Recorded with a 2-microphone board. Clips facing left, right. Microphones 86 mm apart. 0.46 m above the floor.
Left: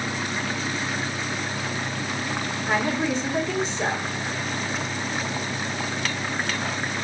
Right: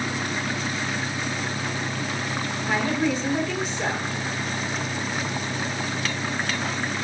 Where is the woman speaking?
25° left (ahead or behind), 1.3 m.